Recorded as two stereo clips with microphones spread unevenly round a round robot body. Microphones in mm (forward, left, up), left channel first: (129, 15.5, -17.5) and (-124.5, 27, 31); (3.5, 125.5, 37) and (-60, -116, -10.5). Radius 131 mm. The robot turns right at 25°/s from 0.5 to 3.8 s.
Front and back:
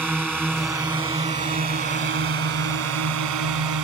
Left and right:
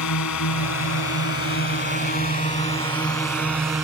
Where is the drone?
90° left; by 3.8 s 170° left.